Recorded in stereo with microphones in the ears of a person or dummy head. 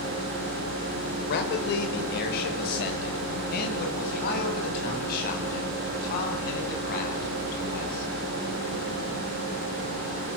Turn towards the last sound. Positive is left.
turn(degrees=50)  # may be behind; listen again after turning